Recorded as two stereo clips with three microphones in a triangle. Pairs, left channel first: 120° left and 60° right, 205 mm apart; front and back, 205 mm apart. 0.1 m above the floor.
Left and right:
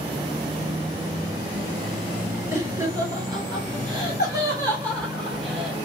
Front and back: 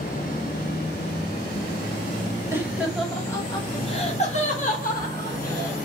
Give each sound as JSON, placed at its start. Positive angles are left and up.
{"t": 2.5, "sound": "laughter", "azimuth_deg": -115, "distance_m": 1.3}